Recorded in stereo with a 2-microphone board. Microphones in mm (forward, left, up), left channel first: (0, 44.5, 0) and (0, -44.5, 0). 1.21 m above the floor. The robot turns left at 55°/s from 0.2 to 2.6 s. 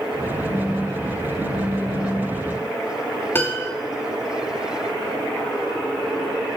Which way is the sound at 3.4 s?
25° left (ahead or behind).